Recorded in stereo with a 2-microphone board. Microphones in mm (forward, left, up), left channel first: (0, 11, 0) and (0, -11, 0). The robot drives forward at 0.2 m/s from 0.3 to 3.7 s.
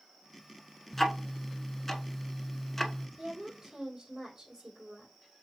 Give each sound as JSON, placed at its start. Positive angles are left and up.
{"t": 0.9, "sound": "ticking", "side_deg": 15, "distance_m": 0.7}
{"t": 3.2, "sound": "a woman speaking", "side_deg": -25, "distance_m": 3.5}